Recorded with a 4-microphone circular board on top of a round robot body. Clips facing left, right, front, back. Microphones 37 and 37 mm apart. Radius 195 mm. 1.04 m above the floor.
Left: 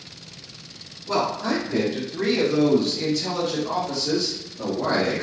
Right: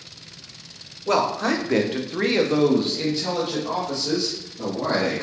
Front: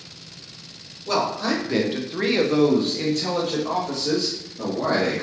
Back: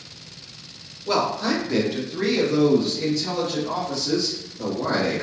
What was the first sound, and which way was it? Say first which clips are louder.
A man speaking: right 3 dB, back 1 dB; 100° right.